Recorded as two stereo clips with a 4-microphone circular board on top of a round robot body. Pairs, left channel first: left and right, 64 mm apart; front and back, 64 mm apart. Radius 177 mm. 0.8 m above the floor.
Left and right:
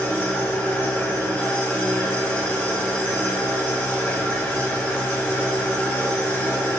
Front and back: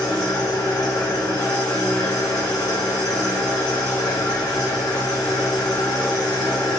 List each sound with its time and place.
0.0 s an engine running: 30° left, 1.8 m